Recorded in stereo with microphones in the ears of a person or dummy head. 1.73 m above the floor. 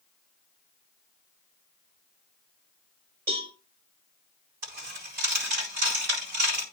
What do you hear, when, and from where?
3.3 s a cowbell: 50° right (ahead or behind), 4.5 m
4.6 s a dropped coin: 55° right (ahead or behind), 4 m